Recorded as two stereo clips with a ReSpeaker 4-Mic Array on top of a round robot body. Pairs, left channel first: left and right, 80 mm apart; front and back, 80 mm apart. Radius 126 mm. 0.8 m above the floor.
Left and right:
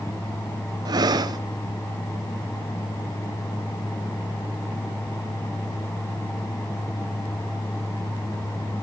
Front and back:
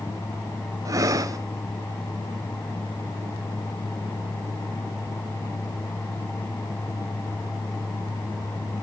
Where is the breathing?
130° right, 0.6 m.